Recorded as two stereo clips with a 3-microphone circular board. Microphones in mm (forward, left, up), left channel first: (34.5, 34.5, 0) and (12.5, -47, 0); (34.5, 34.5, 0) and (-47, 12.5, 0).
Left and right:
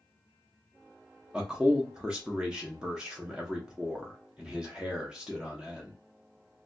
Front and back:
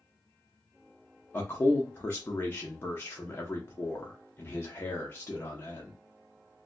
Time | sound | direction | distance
1.3 | a man speaking | 30° right | 0.6 m